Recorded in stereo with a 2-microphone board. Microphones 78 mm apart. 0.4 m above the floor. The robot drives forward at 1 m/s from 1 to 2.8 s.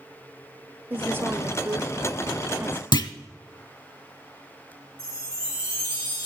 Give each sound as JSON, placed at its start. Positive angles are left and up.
{"t": 0.9, "sound": "a woman speaking", "side_deg": -25, "distance_m": 1.2}
{"t": 2.9, "sound": "a clunk", "side_deg": 65, "distance_m": 0.9}
{"t": 5.0, "sound": "a chime", "side_deg": 35, "distance_m": 7.0}